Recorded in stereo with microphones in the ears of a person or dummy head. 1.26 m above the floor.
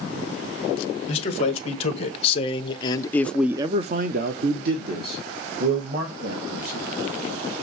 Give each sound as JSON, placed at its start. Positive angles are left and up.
{"t": 1.1, "sound": "a man speaking", "side_deg": 40, "distance_m": 2.0}